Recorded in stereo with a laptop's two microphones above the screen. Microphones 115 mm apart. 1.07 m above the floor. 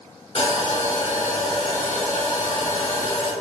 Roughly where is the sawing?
Left.